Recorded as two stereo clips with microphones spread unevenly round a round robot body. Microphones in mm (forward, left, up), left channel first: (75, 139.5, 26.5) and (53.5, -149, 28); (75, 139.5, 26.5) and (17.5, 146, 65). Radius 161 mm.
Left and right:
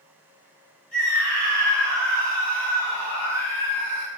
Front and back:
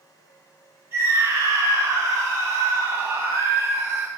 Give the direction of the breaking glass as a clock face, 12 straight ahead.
No breaking glass in this recording.